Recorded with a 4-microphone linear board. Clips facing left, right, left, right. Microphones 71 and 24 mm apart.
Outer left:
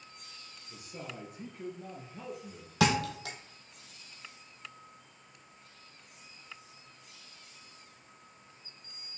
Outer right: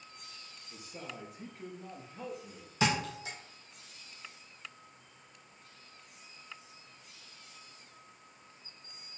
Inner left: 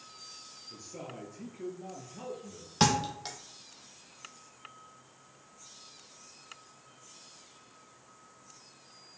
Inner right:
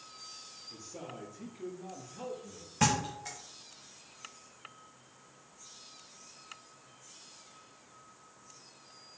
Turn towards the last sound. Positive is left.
turn(degrees=70)  # may be behind; listen again after turning